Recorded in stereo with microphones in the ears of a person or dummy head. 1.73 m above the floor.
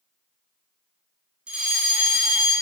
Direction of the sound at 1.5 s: 5° right (ahead or behind).